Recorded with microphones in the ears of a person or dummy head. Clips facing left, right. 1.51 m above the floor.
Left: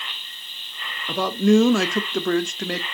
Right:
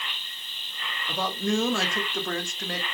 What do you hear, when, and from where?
1.1 s a man speaking: 60° left (ahead or behind), 0.7 m